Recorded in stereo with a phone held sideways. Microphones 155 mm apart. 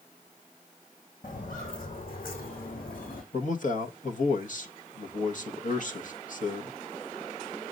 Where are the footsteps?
65° left (ahead or behind), 4 m; by 3.2 s 70° left (ahead or behind), 4 m.